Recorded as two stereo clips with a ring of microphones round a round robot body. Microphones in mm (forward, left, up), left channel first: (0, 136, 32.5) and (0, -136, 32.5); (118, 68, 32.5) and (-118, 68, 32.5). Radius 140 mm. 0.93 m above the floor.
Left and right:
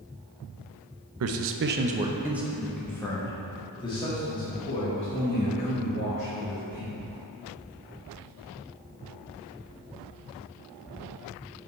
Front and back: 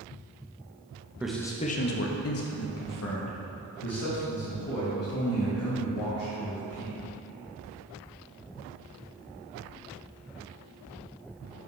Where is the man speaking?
95° right, 0.6 m; by 6.9 s 25° left, 3.5 m.